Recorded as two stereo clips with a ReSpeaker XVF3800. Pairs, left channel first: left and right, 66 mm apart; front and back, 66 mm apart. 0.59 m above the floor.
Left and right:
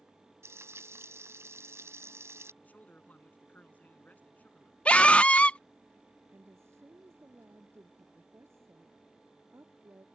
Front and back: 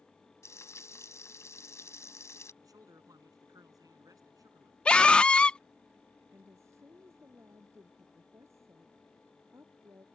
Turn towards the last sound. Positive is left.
turn(degrees=-135)